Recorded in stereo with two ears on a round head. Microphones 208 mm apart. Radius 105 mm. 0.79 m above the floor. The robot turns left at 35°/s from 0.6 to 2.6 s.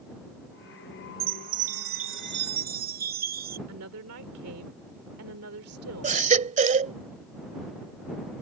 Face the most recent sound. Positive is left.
turn(degrees=-35)  # may be behind; listen again after turning